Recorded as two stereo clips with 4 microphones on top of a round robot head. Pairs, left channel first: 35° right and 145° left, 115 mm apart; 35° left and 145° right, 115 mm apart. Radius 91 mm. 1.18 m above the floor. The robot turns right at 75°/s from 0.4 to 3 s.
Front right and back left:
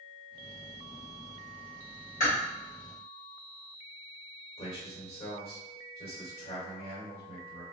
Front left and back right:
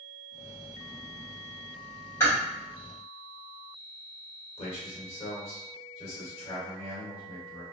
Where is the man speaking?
Straight ahead, 1.7 m.